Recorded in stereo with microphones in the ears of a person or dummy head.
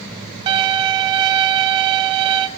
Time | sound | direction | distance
0.5 | a violin | 30° right (ahead or behind) | 0.6 m